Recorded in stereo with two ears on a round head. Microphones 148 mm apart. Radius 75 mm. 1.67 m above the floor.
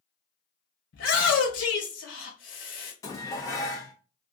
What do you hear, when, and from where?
0.9 s a shout: 85° left, 1.7 m
3.0 s dishes clattering: 20° left (ahead or behind), 0.9 m